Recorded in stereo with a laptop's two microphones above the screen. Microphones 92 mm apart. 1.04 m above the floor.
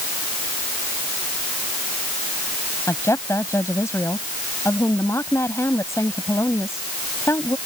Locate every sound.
2.9 s a woman speaking: 30° left (ahead or behind)